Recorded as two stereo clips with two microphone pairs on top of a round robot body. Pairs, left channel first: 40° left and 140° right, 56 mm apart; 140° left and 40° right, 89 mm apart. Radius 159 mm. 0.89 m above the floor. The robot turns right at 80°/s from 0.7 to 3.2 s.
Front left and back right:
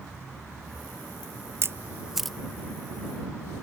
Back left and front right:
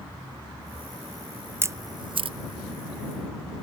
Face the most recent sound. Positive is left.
turn(degrees=25)